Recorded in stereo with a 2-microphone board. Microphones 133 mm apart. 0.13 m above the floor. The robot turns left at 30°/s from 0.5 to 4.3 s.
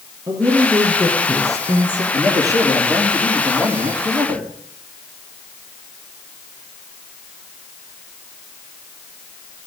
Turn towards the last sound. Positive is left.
turn(degrees=-30)